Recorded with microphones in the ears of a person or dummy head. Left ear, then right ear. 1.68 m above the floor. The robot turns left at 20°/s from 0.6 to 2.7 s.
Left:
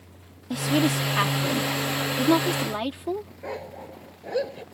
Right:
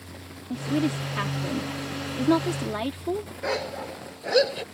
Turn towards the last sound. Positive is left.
turn(degrees=-50)  # may be behind; listen again after turning